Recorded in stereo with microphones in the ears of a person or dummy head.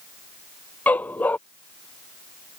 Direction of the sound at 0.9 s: 5° left (ahead or behind).